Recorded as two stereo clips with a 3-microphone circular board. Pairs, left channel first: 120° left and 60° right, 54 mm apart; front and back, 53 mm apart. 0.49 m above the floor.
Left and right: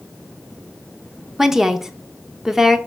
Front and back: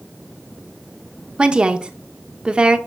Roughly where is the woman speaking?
Behind right.